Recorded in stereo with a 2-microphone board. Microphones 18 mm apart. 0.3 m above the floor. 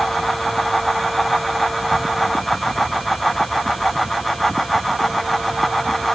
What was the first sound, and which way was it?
Only background noise.